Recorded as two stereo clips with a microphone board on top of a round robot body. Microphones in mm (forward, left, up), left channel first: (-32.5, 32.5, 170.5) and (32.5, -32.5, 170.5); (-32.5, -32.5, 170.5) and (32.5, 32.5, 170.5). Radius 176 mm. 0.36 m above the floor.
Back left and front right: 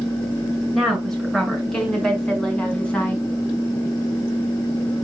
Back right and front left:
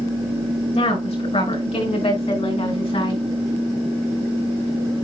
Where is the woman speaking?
140° right, 7 m; by 3.2 s 150° right, 5.5 m.